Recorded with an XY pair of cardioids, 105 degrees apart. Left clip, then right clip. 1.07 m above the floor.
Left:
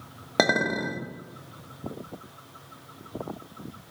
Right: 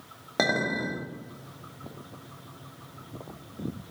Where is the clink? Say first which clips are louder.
Left 3 dB; 35° left, 1.2 m.